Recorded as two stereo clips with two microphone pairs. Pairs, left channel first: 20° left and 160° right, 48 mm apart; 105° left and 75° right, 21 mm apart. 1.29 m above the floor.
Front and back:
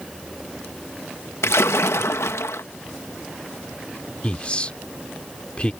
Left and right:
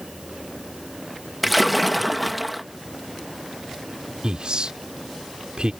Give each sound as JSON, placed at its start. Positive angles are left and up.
{"t": 1.4, "sound": "a splash", "azimuth_deg": 10}
{"t": 4.2, "sound": "a man speaking", "azimuth_deg": -45}